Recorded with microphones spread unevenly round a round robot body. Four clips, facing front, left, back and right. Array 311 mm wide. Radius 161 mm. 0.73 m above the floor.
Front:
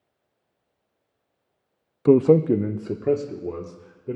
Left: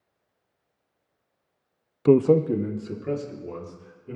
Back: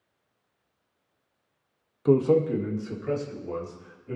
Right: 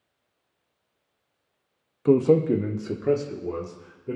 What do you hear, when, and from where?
2.0 s a man speaking: 10° left, 0.5 m; by 4.2 s 30° right, 2.5 m